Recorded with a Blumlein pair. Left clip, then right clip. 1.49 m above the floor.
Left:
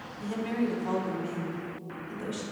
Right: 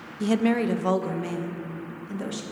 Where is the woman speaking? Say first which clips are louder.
Right 8 dB; 55° right, 0.6 m; by 2.4 s 50° right, 2.5 m.